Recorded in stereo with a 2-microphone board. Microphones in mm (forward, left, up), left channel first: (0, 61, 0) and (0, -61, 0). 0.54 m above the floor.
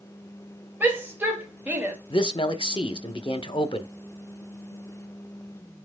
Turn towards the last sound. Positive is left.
turn(degrees=45)  # may be behind; listen again after turning